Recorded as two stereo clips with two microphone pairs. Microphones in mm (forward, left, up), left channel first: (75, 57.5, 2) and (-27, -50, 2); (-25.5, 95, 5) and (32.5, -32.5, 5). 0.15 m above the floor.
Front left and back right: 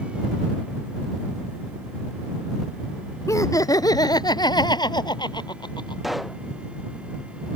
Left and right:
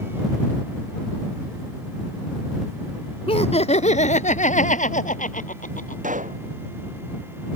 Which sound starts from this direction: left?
Laughter, at 3.3 s.